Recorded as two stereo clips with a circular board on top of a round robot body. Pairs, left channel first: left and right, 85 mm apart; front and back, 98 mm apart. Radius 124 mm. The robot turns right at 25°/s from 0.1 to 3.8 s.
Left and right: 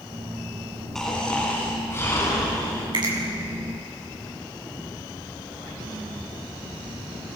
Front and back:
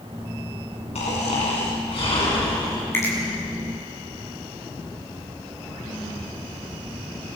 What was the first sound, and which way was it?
Snoring, 5° left.